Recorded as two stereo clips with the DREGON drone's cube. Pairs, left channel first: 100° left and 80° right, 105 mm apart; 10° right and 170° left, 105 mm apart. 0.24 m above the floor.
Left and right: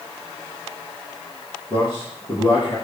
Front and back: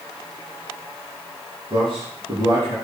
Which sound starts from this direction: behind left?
A man speaking, at 1.7 s.